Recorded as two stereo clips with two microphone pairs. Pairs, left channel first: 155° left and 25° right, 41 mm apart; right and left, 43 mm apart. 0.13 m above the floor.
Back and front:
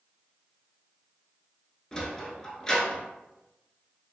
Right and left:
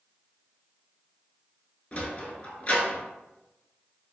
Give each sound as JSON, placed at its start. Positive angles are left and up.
{"t": 1.9, "sound": "a sliding door", "azimuth_deg": -135, "distance_m": 0.6}